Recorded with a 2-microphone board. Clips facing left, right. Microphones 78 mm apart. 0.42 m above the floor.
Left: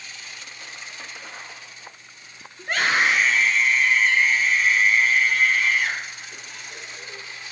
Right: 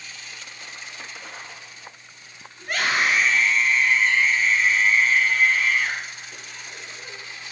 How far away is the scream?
About 6 m.